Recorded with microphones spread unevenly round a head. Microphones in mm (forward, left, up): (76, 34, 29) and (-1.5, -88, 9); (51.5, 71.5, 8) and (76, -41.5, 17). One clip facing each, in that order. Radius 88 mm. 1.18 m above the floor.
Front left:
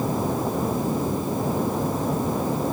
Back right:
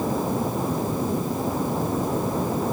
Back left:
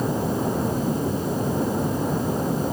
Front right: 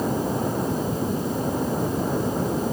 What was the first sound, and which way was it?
Only background noise.